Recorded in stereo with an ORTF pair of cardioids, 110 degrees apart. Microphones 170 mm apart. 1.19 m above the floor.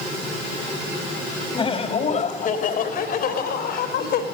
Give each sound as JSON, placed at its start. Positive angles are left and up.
{"t": 1.6, "sound": "laughter", "azimuth_deg": 30, "distance_m": 3.0}